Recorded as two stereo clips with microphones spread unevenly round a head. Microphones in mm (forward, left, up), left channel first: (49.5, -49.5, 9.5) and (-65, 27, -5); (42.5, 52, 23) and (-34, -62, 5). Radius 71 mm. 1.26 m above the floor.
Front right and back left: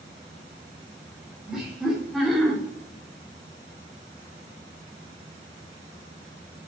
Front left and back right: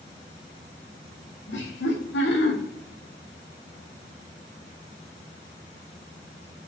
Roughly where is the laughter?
Ahead left.